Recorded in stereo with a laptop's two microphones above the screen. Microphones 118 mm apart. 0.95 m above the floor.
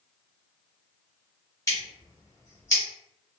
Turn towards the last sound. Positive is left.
turn(degrees=25)  # may be behind; listen again after turning